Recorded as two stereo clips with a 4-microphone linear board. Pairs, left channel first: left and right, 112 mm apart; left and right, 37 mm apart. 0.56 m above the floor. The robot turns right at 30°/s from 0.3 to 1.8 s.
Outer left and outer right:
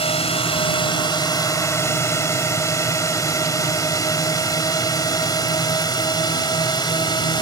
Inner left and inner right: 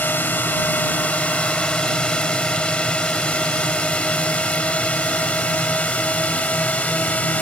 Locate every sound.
0.0 s a drone: 55° left (ahead or behind); by 7.4 s 40° left (ahead or behind)